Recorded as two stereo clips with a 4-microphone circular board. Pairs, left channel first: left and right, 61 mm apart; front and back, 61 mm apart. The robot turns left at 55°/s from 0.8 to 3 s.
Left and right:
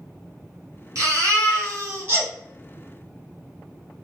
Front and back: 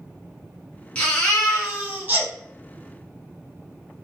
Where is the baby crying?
65° right, 1.6 m; by 2.3 s 140° right, 1.6 m.